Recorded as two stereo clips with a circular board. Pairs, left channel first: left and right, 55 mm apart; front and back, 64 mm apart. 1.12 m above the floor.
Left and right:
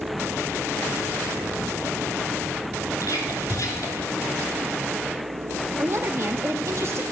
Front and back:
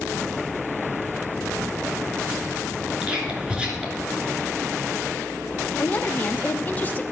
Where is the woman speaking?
60° right, 0.9 m.